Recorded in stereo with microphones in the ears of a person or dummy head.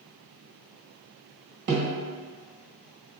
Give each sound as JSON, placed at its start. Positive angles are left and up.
{"t": 1.7, "sound": "a snare drum", "side_deg": -40, "distance_m": 1.5}